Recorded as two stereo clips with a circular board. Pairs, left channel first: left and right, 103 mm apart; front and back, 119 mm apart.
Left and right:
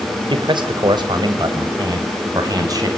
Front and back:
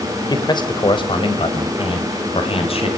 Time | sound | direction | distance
0.3 | a man speaking | 55° right | 2.5 m